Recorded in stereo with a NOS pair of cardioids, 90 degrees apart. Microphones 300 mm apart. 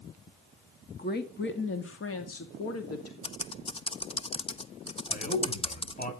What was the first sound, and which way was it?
A woman speaking, 30° left.